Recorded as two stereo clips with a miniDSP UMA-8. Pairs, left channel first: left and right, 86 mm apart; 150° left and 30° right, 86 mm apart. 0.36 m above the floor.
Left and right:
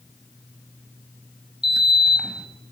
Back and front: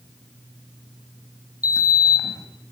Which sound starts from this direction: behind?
A sliding door, at 1.6 s.